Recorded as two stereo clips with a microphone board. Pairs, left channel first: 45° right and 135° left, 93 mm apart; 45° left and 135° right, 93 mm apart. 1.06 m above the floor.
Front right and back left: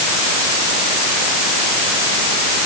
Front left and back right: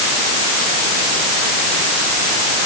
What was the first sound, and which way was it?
Only background noise.